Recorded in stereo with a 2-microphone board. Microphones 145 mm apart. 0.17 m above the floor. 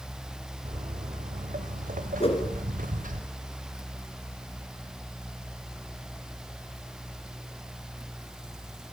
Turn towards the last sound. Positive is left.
turn(degrees=45)  # may be behind; listen again after turning